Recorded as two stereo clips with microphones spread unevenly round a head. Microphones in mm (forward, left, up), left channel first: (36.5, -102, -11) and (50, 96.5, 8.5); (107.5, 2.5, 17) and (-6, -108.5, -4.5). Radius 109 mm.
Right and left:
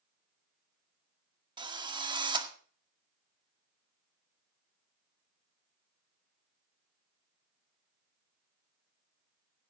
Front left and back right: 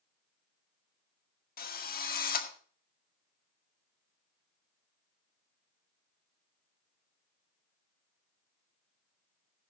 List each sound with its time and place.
1.6 s a drill: 20° left, 1.9 m